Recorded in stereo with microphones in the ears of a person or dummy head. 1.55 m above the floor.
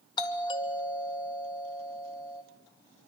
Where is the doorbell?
30° left (ahead or behind), 2.5 m.